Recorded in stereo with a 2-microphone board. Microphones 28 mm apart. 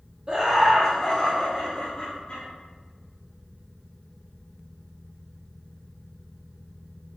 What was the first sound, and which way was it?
Laughter, 25° right (ahead or behind).